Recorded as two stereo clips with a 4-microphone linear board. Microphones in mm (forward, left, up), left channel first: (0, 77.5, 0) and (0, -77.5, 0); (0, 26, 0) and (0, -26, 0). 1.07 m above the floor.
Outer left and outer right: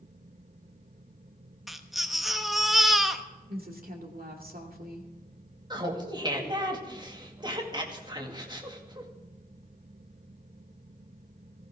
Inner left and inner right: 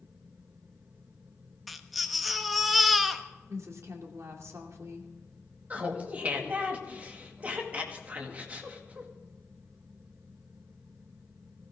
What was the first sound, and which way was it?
A baby crying, centre (ahead or behind).